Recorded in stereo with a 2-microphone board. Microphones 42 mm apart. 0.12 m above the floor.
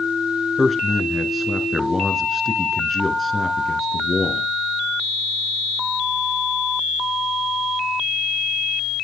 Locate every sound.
0.6 s a man speaking: centre (ahead or behind), 1.3 m